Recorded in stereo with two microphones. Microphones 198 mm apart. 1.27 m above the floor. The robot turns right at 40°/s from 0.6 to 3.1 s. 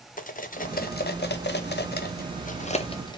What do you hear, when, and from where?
0.2 s cutlery clinking: 45° left (ahead or behind), 0.6 m; by 3.2 s 20° left (ahead or behind), 0.6 m